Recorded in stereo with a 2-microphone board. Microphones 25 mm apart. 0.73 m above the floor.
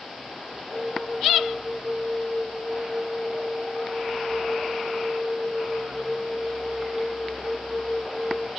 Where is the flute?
Centre (ahead or behind), 4.5 m.